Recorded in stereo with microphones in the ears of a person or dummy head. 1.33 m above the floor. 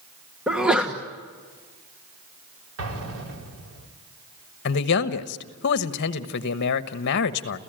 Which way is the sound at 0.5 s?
Centre (ahead or behind).